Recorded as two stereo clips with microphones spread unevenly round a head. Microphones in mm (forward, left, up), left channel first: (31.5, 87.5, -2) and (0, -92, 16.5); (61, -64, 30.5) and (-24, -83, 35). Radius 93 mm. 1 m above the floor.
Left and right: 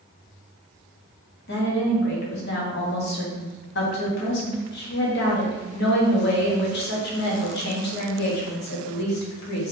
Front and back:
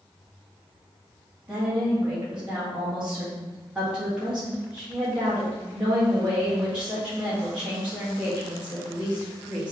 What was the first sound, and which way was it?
A woman speaking, 110° left.